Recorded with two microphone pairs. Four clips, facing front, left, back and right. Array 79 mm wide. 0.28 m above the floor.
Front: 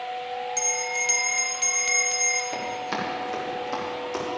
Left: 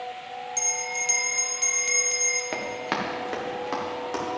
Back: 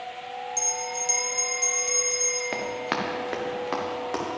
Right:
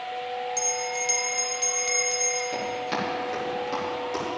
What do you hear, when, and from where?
0.6 s a bell: 15° left, 0.8 m
2.5 s running footsteps: 135° left, 3 m; by 4.2 s 155° left, 5.5 m